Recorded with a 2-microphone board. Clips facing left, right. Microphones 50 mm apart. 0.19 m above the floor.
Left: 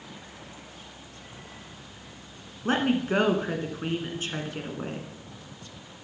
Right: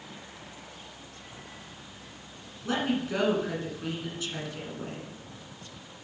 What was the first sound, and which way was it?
A woman speaking, 40° left (ahead or behind).